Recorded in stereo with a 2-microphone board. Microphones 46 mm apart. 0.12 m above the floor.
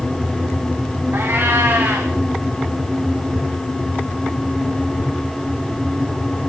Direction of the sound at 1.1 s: 50° right (ahead or behind).